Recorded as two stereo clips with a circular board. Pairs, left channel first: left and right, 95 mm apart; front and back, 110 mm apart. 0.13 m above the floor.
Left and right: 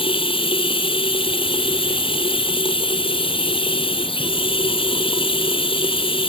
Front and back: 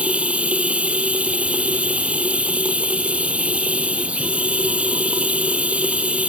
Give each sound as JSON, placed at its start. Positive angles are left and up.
{"t": 0.0, "sound": "running water", "azimuth_deg": 100}